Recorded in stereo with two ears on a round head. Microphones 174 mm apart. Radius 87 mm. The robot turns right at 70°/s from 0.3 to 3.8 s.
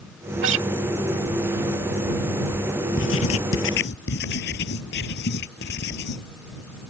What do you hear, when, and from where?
0.4 s a guitar: 70° right (ahead or behind); by 0.7 s 65° right (ahead or behind)
3.0 s writing: 60° left; by 6.3 s 120° left